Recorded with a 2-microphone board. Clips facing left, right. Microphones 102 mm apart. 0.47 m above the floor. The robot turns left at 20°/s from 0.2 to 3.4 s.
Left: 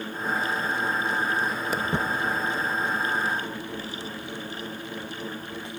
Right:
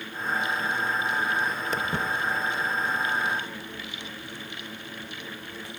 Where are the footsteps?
5° left (ahead or behind), 0.6 m; by 5.7 s 30° left (ahead or behind), 4.5 m.